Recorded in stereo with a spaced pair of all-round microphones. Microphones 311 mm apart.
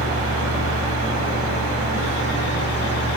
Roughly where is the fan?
Centre.